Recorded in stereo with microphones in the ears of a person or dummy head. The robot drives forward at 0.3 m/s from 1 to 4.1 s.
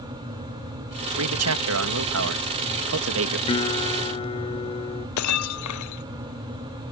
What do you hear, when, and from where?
1.2 s a man speaking: 80° right; by 3.4 s 65° right (ahead or behind)
3.5 s a guitar: 25° left (ahead or behind)
5.2 s breaking glass: 80° left